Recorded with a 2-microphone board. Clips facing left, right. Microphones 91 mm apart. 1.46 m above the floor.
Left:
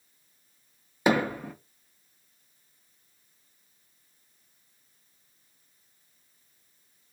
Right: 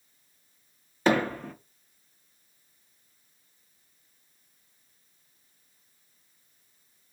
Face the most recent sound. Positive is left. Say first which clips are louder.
# even
turn(degrees=10)  # may be behind; listen again after turning